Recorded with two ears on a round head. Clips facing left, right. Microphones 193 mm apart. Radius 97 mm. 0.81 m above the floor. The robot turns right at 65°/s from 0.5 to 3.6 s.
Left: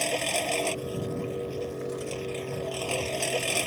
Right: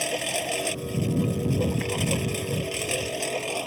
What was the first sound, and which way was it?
A lawn mower, 175° right.